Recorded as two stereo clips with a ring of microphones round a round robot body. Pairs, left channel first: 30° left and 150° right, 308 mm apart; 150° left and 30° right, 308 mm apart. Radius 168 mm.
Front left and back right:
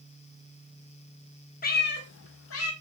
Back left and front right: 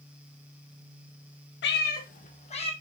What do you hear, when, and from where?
1.6 s a cat meowing: 95° left, 1.1 m; by 2.7 s 75° left, 1.5 m